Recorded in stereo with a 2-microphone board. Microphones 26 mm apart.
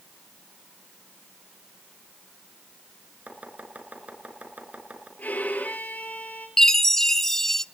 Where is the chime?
15° left (ahead or behind), 0.5 m.